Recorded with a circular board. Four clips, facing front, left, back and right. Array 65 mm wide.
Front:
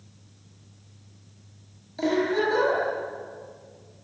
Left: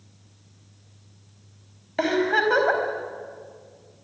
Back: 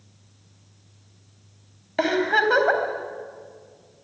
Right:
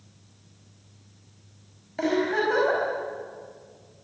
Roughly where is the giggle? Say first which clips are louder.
Left 3 dB, back 3 dB; behind left.